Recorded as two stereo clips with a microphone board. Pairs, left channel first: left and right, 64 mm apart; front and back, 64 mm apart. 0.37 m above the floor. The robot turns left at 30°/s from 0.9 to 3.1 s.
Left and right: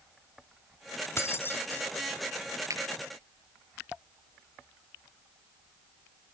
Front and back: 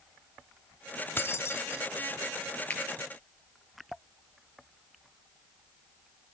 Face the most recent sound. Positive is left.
turn(degrees=-75)